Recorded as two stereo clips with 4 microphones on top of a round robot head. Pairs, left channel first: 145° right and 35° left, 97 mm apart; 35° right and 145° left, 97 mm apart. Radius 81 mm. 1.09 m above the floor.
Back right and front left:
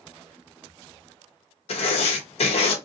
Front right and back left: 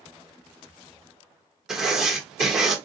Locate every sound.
1.7 s writing: 130° right, 1.0 m